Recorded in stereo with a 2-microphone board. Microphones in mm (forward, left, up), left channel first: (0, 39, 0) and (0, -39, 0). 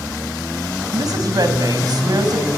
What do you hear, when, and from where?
0.9 s a woman speaking: 55° right (ahead or behind), 4 m